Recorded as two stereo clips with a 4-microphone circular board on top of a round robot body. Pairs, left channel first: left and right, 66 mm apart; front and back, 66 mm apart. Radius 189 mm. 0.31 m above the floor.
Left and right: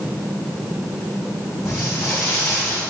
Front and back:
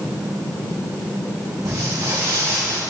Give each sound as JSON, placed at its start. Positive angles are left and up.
{"t": 1.6, "sound": "footsteps", "azimuth_deg": 140, "distance_m": 1.8}